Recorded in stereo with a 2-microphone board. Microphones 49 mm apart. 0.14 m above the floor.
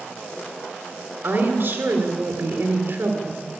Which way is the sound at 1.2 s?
50° right (ahead or behind).